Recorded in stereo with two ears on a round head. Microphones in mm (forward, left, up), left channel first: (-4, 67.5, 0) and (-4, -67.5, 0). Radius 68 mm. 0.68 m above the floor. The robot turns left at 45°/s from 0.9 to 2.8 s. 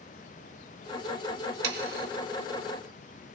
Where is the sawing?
85° right, 1.1 m; by 2.1 s 70° right (ahead or behind), 1.1 m.